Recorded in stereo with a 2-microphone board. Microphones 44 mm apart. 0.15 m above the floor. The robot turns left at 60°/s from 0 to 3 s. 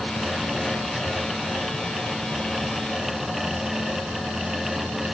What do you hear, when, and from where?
Only background noise.